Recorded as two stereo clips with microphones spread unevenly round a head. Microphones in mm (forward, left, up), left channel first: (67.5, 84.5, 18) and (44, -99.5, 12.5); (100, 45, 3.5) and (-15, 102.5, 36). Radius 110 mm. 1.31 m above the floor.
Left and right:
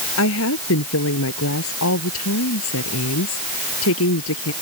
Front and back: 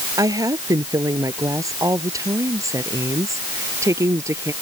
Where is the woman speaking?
90° left.